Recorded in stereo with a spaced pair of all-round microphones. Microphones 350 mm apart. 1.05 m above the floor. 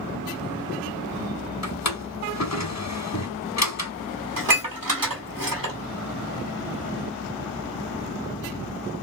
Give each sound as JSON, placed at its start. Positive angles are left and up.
{"t": 1.6, "sound": "a drawer", "side_deg": 50, "distance_m": 1.0}
{"t": 4.4, "sound": "dishes clattering", "side_deg": -70, "distance_m": 1.8}